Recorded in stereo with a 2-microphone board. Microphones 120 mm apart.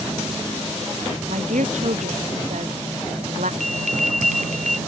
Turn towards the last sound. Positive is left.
turn(degrees=-85)